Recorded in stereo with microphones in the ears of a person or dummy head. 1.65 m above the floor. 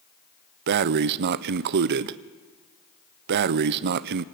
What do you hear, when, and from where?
0.7 s breathing: 55° right (ahead or behind), 0.6 m